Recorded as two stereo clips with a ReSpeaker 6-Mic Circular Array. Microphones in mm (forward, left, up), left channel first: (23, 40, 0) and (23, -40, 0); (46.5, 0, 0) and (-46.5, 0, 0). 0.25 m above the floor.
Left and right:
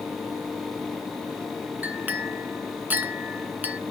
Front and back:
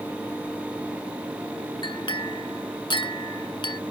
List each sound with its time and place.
1.8 s a clink: 25° right, 1.5 m